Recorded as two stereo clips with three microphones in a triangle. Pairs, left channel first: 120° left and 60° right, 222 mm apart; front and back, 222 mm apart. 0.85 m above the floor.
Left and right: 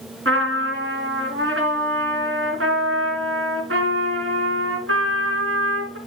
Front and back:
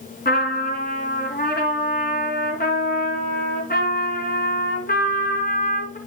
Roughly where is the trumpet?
Ahead right.